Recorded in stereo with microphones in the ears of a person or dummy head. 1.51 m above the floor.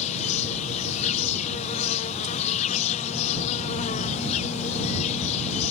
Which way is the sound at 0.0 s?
40° left (ahead or behind).